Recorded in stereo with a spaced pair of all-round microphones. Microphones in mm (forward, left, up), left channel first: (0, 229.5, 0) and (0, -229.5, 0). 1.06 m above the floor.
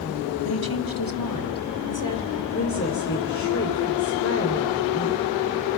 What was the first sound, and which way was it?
A woman speaking, 50° left (ahead or behind).